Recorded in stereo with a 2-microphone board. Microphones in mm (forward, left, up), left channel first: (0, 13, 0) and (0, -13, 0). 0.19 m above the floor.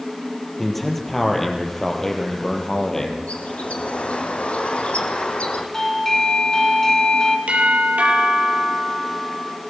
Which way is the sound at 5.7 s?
15° left (ahead or behind).